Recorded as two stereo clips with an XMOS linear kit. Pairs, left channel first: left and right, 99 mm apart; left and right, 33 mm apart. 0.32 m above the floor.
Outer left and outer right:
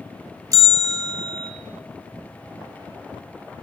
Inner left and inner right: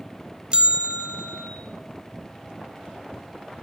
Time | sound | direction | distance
0.5 | a bell | 35° right (ahead or behind) | 0.8 m